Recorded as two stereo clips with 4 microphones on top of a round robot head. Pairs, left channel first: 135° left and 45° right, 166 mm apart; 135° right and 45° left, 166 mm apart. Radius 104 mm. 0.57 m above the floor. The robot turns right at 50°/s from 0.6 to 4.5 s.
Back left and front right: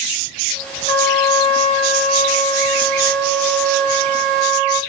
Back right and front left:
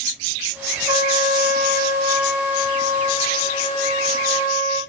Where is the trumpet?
110° left, 1.4 m; by 4.8 s 70° right, 1.4 m.